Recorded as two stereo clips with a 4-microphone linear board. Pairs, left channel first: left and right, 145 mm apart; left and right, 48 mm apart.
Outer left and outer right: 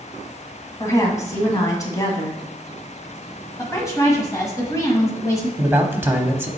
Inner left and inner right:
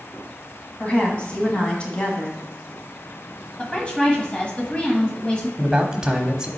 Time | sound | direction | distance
0.8 | a woman speaking | 25° left (ahead or behind) | 1.9 m
3.6 | a woman speaking | 25° left (ahead or behind) | 1.3 m
5.6 | a man speaking | 15° right (ahead or behind) | 1.0 m